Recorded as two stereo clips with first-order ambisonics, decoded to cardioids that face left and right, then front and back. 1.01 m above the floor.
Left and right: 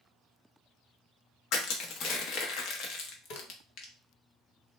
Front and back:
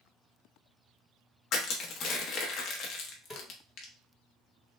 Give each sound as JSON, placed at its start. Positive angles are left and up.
{"t": 1.5, "sound": "crushing", "azimuth_deg": 50, "distance_m": 0.7}
{"t": 3.3, "sound": "a snare drum", "azimuth_deg": 90, "distance_m": 0.9}